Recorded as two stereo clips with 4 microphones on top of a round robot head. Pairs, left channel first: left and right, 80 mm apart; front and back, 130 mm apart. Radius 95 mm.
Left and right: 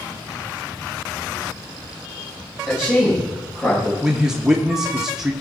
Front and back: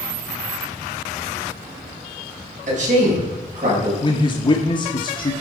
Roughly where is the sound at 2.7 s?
Behind.